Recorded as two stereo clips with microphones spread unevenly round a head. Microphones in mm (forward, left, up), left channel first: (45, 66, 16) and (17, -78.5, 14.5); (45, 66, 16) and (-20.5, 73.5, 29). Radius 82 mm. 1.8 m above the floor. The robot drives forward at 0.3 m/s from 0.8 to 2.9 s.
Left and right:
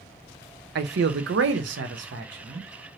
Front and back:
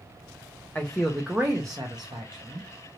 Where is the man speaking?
90° right, 0.5 m; by 2.7 s 140° right, 0.8 m.